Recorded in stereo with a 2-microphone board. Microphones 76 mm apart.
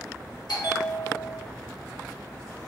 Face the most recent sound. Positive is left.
turn(degrees=70)  # may be behind; listen again after turning